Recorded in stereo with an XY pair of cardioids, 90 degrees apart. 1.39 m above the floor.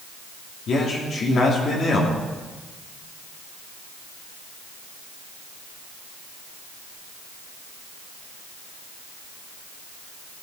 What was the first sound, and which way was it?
A man speaking, 60° left.